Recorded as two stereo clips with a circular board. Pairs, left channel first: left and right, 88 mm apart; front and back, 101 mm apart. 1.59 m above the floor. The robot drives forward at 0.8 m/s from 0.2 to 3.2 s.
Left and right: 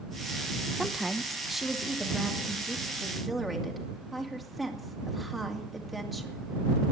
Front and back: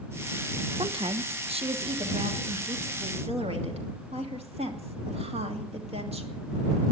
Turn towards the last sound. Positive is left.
turn(degrees=180)